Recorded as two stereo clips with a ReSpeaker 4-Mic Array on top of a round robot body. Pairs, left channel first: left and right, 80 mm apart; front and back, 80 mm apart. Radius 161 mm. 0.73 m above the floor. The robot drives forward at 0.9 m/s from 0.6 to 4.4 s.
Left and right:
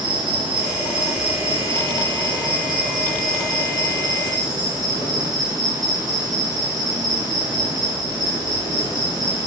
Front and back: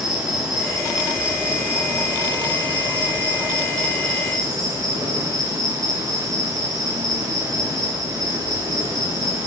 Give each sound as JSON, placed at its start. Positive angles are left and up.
{"t": 0.0, "sound": "an insect", "azimuth_deg": -100, "distance_m": 4.0}